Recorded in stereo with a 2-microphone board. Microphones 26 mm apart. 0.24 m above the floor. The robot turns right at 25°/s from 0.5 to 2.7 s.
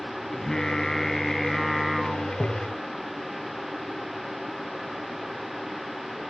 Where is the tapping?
50° left (ahead or behind); by 2.8 s 40° left (ahead or behind).